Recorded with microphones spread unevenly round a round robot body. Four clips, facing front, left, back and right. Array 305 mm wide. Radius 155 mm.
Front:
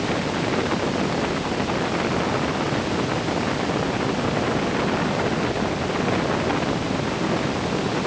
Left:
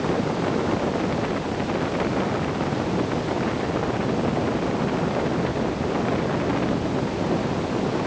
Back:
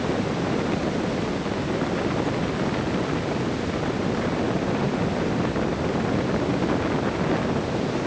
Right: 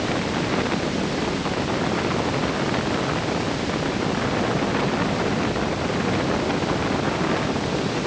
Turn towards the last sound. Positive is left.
No sound to turn to.